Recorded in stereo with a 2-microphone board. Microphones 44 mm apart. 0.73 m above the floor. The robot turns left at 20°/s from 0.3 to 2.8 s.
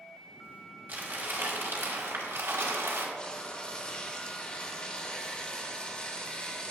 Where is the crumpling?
45° right, 1.7 m; by 3.1 s 85° right, 1.7 m.